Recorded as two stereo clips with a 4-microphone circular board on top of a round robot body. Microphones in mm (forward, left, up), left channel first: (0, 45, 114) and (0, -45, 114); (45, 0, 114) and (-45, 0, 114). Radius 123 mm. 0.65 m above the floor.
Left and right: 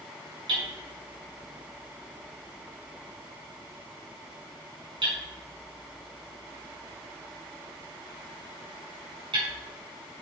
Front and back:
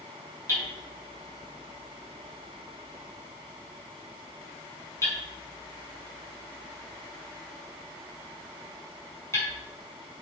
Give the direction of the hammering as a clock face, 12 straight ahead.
2 o'clock.